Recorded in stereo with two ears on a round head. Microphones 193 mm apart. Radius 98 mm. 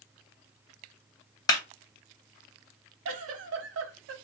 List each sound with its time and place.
1.5 s a clap: 20° left (ahead or behind), 1.7 m
3.0 s a giggle: 65° right (ahead or behind), 0.9 m